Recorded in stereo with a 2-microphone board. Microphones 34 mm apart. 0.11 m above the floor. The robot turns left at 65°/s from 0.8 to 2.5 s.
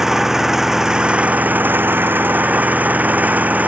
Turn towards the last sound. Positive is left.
turn(degrees=-125)